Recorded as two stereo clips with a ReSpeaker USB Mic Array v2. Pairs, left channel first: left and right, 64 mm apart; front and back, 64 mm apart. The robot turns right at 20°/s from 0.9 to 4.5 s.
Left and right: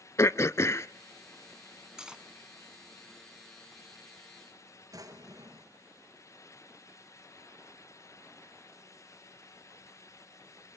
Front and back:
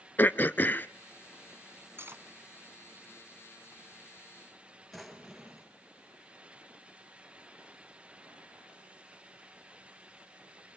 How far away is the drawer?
About 2 m.